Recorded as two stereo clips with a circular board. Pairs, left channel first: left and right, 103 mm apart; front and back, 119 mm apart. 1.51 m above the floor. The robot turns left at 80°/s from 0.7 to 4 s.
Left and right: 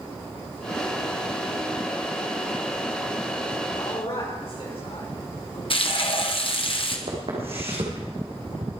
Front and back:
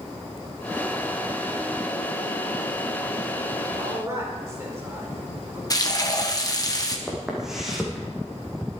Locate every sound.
3.8 s a man speaking: 130° left, 5 m; by 5.6 s 115° left, 5 m
5.7 s frying: 60° left, 1.4 m
7.1 s footsteps: 95° right, 4 m; by 8.7 s 85° right, 4 m